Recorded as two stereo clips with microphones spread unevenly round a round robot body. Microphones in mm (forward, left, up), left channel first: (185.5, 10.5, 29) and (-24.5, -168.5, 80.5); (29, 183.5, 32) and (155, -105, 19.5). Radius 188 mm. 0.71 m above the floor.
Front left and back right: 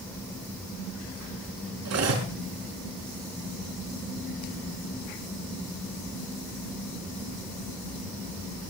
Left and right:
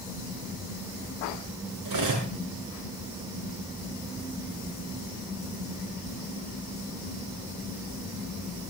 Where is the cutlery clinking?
110° right, 5.5 m.